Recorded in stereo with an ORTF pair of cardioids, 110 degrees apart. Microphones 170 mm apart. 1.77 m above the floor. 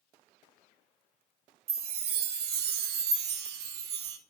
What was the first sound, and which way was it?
A chime, 70° right.